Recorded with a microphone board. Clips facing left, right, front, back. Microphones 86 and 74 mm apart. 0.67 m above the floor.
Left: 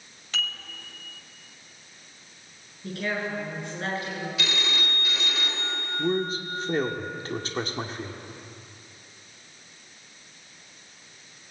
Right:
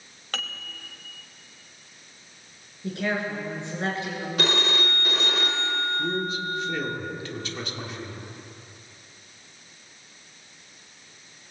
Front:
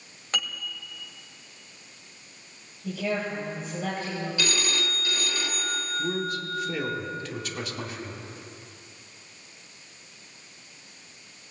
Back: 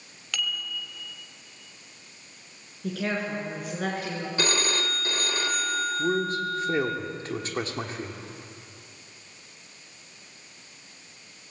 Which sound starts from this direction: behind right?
A phone ringing, at 4.4 s.